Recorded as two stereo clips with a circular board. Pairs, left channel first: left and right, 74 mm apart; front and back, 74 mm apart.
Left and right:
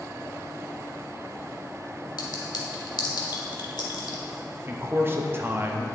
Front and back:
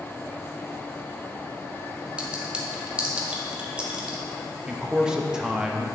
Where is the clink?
105° left, 1.1 m.